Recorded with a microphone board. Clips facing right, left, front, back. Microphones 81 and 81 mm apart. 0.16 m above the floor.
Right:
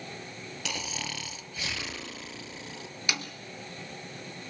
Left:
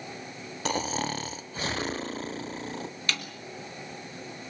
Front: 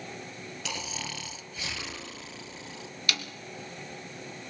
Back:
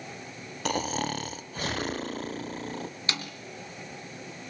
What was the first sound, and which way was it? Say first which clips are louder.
Snoring: left 9 dB, back 11 dB; 140° left.